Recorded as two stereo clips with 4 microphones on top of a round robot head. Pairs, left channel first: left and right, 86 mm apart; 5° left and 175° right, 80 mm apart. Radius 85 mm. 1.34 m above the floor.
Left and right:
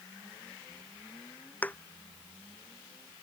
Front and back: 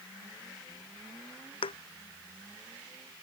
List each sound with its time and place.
1.6 s a thud: 15° left